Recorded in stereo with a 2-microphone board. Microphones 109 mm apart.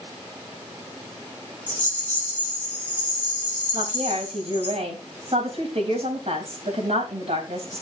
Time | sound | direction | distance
1.7 | a rattle | 15° left (ahead or behind) | 7.5 m
3.7 | a woman speaking | 65° right (ahead or behind) | 4 m